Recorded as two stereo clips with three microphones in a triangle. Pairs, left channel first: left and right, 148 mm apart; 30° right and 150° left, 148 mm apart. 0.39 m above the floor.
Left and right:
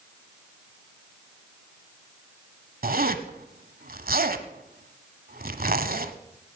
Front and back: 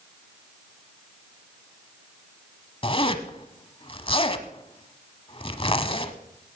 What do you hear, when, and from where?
2.8 s a zipper: 80° right, 1.0 m